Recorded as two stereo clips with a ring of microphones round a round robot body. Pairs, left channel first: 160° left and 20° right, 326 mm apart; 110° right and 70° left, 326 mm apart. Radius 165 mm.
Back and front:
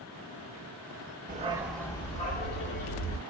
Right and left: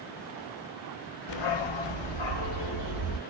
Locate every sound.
1.3 s a dog barking: 85° right, 0.6 m; by 3.2 s 150° right, 1.3 m